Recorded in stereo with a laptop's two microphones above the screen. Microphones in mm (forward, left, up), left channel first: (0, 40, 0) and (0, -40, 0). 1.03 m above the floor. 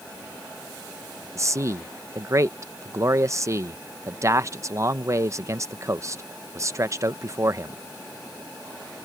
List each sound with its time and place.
1.4 s a man speaking: 40° right (ahead or behind)